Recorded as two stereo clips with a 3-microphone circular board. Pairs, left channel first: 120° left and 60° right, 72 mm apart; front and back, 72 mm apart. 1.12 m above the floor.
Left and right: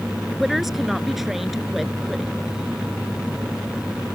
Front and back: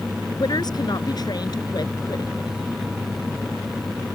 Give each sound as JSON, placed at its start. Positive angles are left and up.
{"t": 0.4, "sound": "a woman speaking", "azimuth_deg": 30}